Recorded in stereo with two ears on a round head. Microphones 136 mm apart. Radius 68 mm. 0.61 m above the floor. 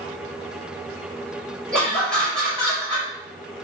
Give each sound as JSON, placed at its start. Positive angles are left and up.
{"t": 1.7, "sound": "laughter", "side_deg": 5, "distance_m": 1.6}